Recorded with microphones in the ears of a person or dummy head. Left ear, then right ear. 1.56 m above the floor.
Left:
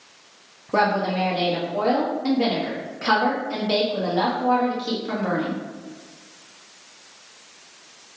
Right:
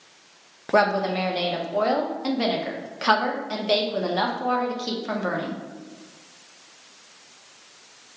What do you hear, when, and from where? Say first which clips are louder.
0.7 s a woman speaking: even; 80° right, 0.9 m